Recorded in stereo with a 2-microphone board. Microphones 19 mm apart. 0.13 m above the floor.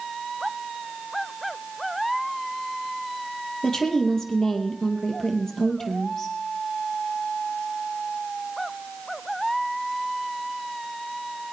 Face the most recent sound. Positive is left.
turn(degrees=35)  # may be behind; listen again after turning